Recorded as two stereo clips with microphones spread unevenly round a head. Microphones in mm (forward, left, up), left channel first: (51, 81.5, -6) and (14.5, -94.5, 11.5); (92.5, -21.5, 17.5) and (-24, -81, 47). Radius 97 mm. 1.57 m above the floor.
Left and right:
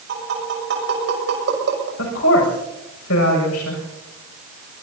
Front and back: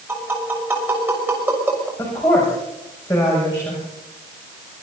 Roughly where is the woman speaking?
Left.